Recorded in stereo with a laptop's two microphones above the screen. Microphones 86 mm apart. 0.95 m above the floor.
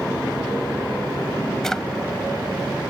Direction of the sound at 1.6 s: 5° left (ahead or behind).